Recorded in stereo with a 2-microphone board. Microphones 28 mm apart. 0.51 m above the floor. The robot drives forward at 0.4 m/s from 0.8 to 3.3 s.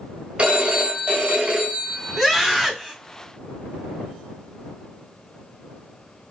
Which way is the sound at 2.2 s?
10° left (ahead or behind).